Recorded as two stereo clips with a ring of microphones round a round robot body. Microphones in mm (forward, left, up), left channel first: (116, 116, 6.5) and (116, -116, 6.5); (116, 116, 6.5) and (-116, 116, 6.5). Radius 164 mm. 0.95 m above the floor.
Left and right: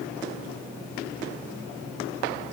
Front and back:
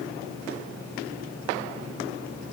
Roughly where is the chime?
No chime in this recording.